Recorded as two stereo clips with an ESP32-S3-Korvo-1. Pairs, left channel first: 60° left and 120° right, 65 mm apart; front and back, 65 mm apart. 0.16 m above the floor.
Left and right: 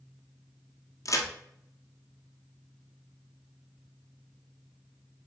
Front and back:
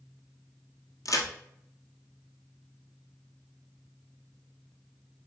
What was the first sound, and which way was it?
A crack, 30° left.